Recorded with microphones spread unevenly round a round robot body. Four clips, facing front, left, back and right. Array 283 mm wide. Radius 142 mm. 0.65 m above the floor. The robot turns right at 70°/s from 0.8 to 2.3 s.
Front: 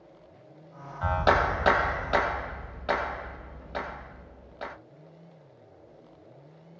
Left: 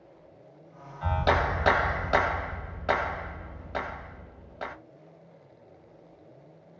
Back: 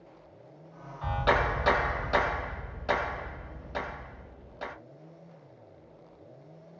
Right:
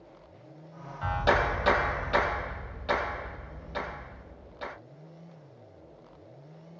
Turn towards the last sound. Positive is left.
turn(degrees=90)